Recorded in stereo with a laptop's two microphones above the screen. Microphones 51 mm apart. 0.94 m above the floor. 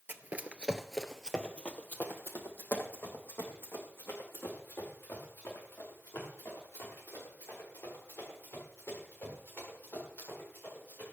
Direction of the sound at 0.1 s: 40° right (ahead or behind).